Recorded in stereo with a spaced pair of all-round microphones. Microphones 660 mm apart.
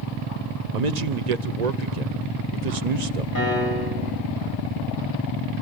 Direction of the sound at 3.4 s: 30° left (ahead or behind).